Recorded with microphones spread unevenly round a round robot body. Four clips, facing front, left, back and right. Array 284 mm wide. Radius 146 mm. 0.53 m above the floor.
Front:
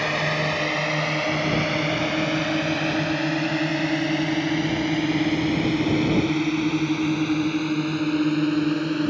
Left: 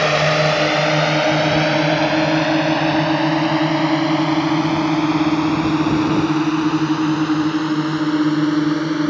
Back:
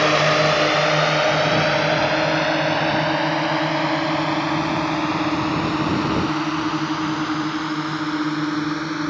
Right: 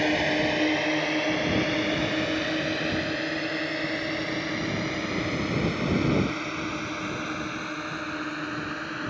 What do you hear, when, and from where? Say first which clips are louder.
0.0 s a drone: left 8 dB, back 8 dB; 110° left; by 9.1 s 80° left